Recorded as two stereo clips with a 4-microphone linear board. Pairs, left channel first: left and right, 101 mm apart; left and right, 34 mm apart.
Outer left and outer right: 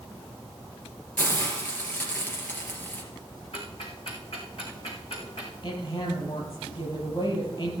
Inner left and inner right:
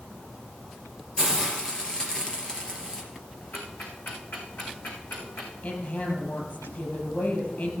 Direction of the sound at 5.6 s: 60° left (ahead or behind).